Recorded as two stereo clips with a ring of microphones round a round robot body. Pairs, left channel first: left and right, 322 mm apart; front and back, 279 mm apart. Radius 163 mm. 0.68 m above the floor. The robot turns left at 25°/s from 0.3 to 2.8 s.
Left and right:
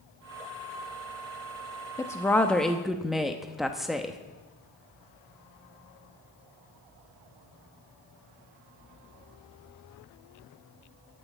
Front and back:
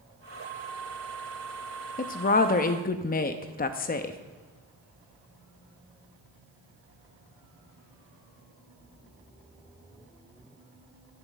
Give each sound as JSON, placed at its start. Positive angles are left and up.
{"t": 2.0, "sound": "a woman speaking", "azimuth_deg": 20, "distance_m": 0.6}